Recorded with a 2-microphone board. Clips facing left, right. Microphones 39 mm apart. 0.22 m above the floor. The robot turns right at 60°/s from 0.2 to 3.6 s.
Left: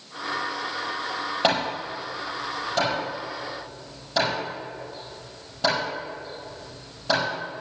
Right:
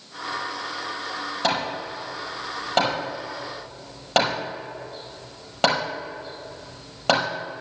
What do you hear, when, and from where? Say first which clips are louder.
1.4 s hammering: left 1 dB; 30° left (ahead or behind), 5 m; by 7.6 s 75° right (ahead or behind), 5 m